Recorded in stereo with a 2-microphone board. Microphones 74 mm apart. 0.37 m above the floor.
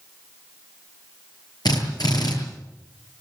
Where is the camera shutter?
No camera shutter in this recording.